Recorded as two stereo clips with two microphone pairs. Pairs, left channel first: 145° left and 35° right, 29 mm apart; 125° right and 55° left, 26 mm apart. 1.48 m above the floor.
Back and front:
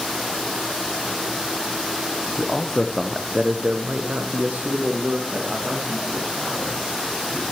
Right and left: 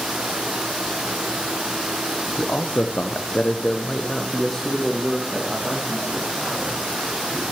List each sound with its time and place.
2.4 s a man speaking: 155° right, 0.8 m; by 7.4 s 25° right, 3.5 m